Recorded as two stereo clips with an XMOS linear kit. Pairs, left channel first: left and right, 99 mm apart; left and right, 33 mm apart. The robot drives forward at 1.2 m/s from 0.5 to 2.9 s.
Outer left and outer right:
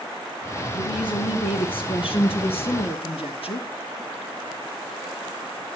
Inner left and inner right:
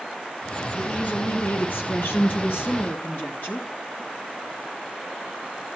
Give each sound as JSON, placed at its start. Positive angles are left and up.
{"t": 0.7, "sound": "a woman speaking", "side_deg": 55, "distance_m": 5.5}